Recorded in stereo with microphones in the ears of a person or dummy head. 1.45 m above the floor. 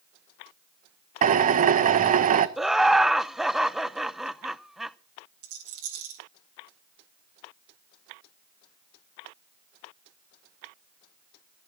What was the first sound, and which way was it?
A drill, 40° right (ahead or behind).